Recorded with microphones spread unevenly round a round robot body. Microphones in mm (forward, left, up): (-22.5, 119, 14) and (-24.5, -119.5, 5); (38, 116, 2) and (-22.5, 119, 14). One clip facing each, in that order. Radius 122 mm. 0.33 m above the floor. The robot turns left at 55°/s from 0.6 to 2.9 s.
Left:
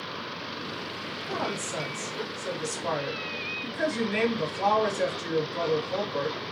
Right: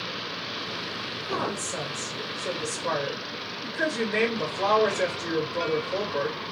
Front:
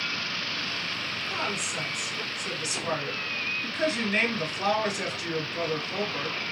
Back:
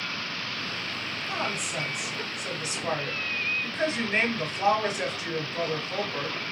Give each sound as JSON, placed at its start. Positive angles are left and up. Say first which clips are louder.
{"t": 1.3, "sound": "a woman speaking", "louder": "right 2 dB, back 2 dB", "azimuth_deg": -160, "distance_m": 2.0}